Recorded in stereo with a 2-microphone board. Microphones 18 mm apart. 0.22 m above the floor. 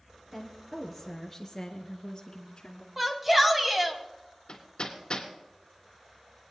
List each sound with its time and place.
0.3 s a woman speaking: 10° right (ahead or behind), 3.5 m; by 2.9 s 50° left (ahead or behind), 2.5 m
3.0 s a shout: 20° right (ahead or behind), 1.3 m
4.5 s hammering: 45° left (ahead or behind), 3 m